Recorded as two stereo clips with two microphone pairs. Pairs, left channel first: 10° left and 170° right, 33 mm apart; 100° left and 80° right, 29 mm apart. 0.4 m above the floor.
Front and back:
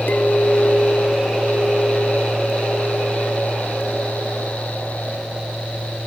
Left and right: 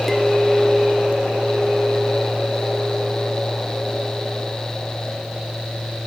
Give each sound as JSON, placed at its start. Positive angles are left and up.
{"t": 0.1, "sound": "a clink", "azimuth_deg": 5}